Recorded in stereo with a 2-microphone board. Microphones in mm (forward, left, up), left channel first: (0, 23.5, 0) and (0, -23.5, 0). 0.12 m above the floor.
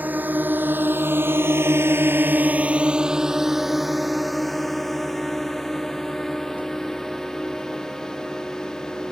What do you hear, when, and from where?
0.0 s a drone: 40° right (ahead or behind); by 9.1 s 15° left (ahead or behind)